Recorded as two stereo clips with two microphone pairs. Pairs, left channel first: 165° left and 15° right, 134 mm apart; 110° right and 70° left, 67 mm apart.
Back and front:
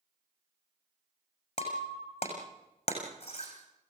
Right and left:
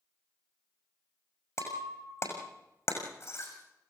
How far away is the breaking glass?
About 5.5 m.